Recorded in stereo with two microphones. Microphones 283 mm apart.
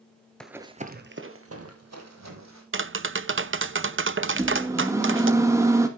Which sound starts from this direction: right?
Tapping, at 2.7 s.